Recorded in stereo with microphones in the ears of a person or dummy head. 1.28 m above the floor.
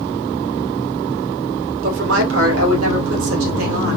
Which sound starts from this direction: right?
A woman speaking, at 1.8 s.